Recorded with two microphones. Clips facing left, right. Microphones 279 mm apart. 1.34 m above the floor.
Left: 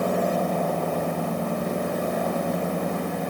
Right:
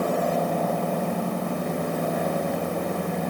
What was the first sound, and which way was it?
Only background noise.